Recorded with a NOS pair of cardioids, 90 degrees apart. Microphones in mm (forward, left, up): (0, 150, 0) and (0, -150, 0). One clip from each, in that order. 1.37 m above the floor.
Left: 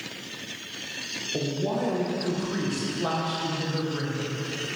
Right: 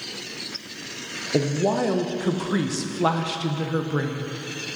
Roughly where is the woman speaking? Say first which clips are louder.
Right 7 dB; ahead right.